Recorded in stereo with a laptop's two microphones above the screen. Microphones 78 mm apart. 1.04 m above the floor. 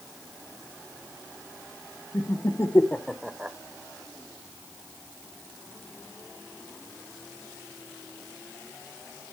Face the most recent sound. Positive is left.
turn(degrees=-20)  # may be behind; listen again after turning